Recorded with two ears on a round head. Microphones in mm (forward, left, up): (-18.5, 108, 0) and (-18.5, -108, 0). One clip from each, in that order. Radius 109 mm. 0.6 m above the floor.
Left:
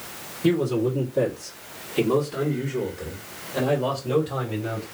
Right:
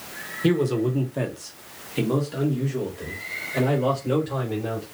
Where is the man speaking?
30° right (ahead or behind), 1.4 m; by 4.8 s 10° right (ahead or behind), 3.5 m.